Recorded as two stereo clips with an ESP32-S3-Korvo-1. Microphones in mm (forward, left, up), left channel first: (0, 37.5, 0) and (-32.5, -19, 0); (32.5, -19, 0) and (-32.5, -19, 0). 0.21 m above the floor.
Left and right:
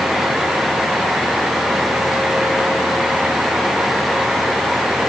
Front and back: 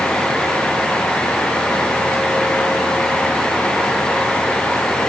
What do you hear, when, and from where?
Only background noise.